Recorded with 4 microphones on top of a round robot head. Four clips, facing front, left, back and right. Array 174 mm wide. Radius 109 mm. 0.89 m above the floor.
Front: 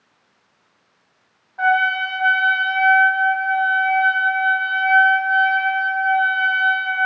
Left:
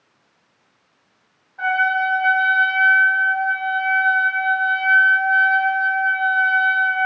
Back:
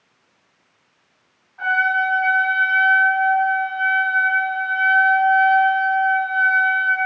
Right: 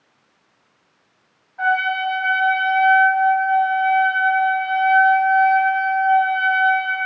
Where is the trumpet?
Straight ahead, 0.9 m.